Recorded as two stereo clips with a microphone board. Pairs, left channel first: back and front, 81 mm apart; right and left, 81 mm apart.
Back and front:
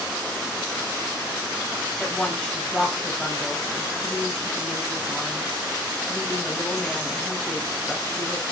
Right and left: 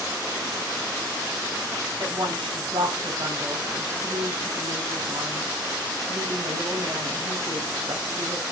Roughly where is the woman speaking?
Left.